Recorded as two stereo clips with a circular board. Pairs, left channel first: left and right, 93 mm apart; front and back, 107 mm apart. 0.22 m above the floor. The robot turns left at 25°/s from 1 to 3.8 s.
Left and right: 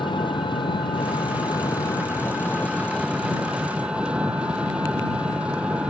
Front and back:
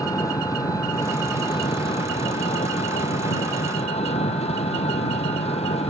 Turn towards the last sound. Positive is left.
turn(degrees=-10)